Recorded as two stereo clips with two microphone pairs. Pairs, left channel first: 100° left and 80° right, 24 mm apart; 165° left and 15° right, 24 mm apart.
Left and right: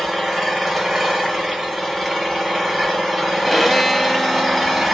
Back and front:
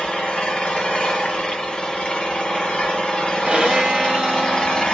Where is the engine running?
160° right, 1.3 m.